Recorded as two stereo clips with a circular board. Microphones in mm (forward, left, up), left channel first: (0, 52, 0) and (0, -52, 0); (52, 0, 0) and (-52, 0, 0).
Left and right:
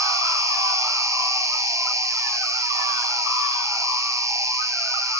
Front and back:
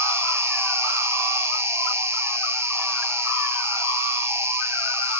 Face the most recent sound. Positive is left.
turn(degrees=-130)